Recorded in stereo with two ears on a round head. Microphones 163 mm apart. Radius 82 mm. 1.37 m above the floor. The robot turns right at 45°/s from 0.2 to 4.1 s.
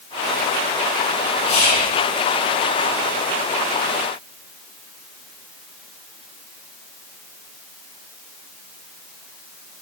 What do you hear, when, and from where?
1.5 s whispering: 35° left (ahead or behind), 1.0 m; by 1.9 s 50° left (ahead or behind), 1.0 m